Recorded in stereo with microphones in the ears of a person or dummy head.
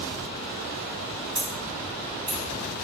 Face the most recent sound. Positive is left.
turn(degrees=10)  # may be behind; listen again after turning